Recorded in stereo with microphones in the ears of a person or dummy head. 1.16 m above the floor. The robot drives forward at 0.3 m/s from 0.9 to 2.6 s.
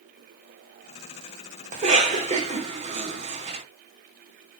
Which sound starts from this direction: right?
A cough, at 1.7 s.